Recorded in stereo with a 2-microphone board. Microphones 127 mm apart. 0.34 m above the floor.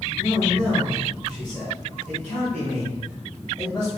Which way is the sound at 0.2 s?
10° left (ahead or behind).